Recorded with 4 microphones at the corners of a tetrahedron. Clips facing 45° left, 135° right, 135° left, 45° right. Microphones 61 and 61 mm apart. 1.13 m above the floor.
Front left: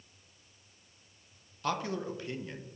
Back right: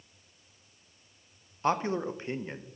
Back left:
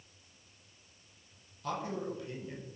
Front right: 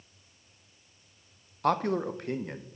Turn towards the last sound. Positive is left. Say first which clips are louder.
# back right 5 dB, front right 10 dB
turn(degrees=-75)